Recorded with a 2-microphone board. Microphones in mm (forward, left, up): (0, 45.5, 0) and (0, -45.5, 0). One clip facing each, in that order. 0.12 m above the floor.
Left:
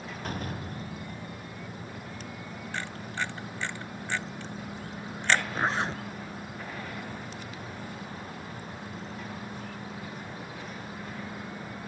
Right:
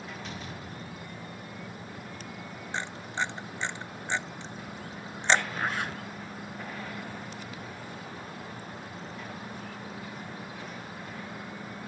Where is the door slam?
50° left (ahead or behind).